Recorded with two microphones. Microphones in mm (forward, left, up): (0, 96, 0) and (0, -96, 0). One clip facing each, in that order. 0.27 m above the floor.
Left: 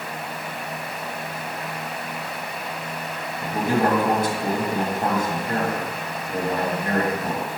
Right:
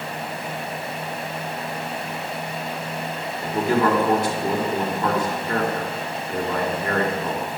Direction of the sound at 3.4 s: 50° left (ahead or behind).